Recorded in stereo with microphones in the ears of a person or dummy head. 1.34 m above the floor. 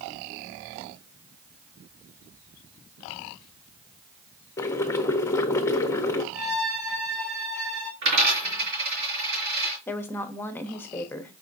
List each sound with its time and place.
4.6 s boiling: 15° left (ahead or behind), 0.5 m
6.3 s a violin: centre (ahead or behind), 1.0 m
8.0 s a dropped coin: 60° right (ahead or behind), 3.5 m
9.9 s a woman speaking: 10° left (ahead or behind), 0.7 m